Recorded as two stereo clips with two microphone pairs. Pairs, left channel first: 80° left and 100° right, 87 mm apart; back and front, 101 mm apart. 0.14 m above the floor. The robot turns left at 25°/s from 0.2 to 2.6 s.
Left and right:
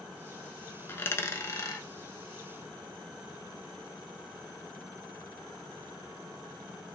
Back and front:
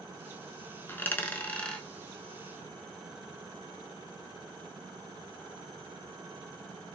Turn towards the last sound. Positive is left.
turn(degrees=80)